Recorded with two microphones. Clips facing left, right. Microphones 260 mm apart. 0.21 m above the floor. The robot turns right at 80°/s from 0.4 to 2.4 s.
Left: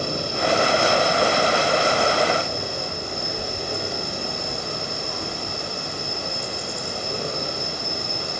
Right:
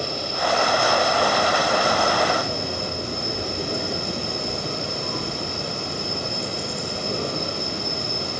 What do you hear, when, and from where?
0.0 s an insect: 125° left, 7.5 m; by 8.4 s 75° right, 7.5 m